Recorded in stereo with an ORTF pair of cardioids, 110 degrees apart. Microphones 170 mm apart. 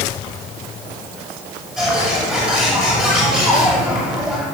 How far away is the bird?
About 6.5 m.